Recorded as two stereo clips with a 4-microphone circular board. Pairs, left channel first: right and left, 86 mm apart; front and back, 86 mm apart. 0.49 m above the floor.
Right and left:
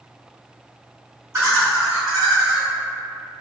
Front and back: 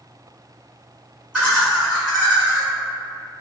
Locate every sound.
1.3 s laughter: 105° left, 1.6 m